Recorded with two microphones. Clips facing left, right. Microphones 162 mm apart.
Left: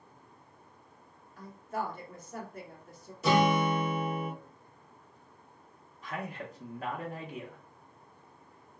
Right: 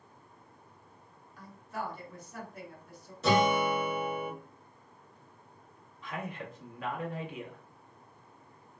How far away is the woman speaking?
About 1.3 m.